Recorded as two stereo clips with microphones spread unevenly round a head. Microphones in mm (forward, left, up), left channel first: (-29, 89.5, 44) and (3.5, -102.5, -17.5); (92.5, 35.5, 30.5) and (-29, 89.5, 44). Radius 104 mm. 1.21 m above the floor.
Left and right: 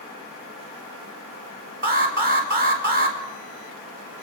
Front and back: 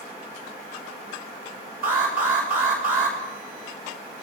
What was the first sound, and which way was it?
An alarm, 125° right.